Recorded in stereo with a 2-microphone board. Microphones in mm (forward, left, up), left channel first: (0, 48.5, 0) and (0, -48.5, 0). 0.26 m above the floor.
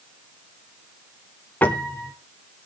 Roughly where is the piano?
Centre.